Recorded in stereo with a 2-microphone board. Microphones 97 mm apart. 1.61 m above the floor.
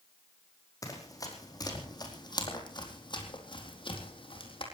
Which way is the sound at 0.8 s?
35° left (ahead or behind).